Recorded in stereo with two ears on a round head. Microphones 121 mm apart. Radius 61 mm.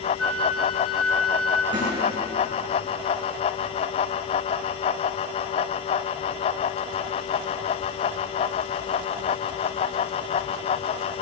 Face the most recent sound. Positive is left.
turn(degrees=-35)  # may be behind; listen again after turning